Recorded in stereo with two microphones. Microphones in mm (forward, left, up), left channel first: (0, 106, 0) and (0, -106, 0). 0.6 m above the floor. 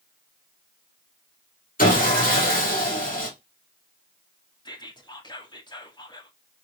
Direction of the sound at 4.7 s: 20° left (ahead or behind).